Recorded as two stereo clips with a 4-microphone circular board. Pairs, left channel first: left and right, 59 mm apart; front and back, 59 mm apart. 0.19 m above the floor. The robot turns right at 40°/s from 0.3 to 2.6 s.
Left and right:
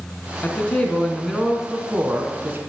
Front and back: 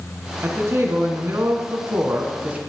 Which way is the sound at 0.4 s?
145° left.